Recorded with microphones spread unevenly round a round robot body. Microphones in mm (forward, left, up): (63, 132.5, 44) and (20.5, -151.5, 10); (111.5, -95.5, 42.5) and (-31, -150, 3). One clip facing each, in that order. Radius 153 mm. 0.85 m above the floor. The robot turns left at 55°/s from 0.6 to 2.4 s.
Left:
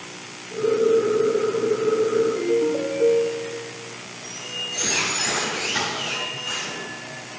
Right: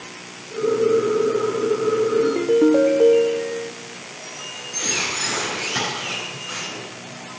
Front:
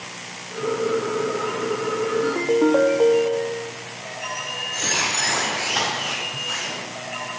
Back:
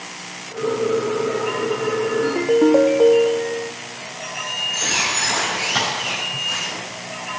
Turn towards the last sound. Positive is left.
turn(degrees=160)